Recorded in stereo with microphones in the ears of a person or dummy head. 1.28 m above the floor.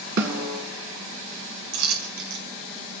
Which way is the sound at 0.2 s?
60° right (ahead or behind).